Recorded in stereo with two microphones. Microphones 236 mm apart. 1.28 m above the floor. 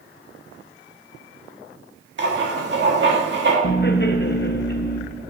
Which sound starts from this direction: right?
Writing, at 2.2 s.